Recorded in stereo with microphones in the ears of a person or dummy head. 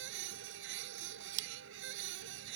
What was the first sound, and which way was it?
A machine running, 70° right (ahead or behind).